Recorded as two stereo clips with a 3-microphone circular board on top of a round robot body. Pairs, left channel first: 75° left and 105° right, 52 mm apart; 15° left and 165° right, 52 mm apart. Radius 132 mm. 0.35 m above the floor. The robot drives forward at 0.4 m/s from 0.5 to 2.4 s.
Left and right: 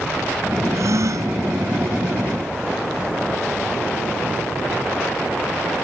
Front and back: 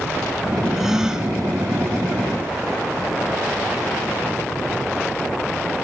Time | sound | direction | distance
0.7 | a gasp | 80° right | ?